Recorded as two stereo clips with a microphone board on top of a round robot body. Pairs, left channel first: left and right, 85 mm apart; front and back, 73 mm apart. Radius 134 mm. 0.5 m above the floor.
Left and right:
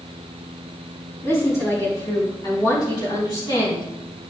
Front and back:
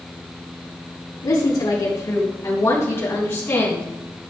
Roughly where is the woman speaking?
Ahead left.